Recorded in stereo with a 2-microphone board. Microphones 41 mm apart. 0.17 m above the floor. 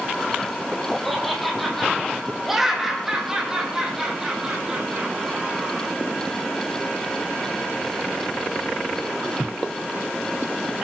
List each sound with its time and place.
1.1 s laughter: centre (ahead or behind), 6 m; by 5.9 s 25° right (ahead or behind), 6.5 m